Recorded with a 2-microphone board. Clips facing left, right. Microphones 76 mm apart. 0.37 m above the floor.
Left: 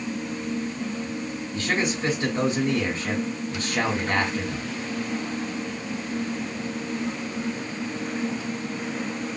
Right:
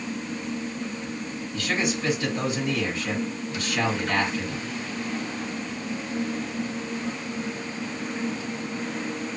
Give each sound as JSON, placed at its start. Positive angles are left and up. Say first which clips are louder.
{"t": 1.5, "sound": "a man speaking", "louder": "left 1 dB", "side_deg": 40, "distance_m": 2.0}